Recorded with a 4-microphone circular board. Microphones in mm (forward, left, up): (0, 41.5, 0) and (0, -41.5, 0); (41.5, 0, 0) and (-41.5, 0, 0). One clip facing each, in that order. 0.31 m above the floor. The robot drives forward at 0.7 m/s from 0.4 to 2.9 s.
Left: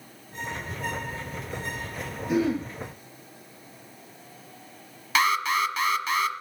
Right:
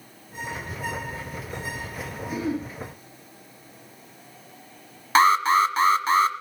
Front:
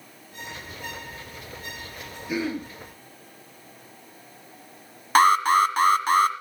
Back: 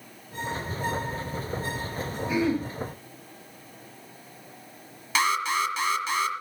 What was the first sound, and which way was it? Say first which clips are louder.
Throat clearing: left 4 dB, back 3 dB; 70° left.